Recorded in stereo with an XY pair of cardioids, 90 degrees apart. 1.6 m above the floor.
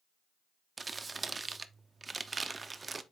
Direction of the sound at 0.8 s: 30° right.